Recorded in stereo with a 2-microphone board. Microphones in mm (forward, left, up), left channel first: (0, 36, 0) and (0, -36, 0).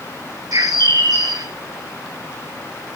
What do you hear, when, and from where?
0.5 s a bird: 60° right (ahead or behind), 1.2 m